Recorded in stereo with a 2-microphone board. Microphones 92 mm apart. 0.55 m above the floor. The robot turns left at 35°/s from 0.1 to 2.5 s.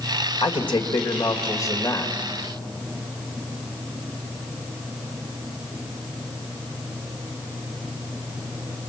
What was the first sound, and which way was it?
A man speaking, 90° left.